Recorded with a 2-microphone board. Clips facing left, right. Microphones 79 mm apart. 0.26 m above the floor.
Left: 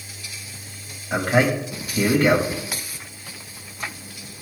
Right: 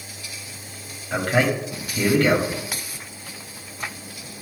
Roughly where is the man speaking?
Centre.